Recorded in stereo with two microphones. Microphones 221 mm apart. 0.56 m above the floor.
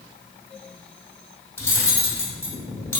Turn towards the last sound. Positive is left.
turn(degrees=10)  # may be behind; listen again after turning